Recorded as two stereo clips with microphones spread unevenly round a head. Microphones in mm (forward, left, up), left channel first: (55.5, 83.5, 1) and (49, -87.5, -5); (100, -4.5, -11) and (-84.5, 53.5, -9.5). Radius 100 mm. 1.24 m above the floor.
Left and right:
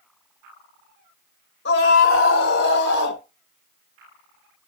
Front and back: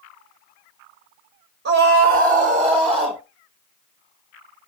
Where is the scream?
130° left, 2.5 m; by 3.2 s 90° left, 2.5 m.